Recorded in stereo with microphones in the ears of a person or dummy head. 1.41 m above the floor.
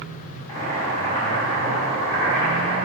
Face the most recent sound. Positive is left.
turn(degrees=15)  # may be behind; listen again after turning